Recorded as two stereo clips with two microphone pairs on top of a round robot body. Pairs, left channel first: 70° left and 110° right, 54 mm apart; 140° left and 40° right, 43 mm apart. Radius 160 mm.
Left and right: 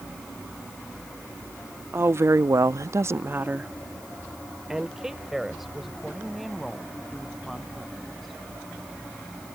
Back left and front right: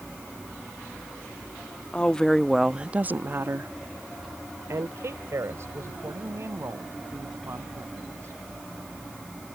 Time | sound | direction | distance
1.9 | a woman speaking | 150° right | ?